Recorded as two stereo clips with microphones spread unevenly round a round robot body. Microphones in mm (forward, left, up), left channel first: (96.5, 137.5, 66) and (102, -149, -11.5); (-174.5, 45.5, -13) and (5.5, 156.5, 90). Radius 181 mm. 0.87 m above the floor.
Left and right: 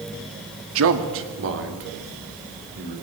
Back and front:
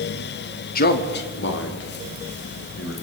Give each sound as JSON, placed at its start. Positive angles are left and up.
{"t": 0.8, "sound": "a man speaking", "azimuth_deg": -120, "distance_m": 1.7}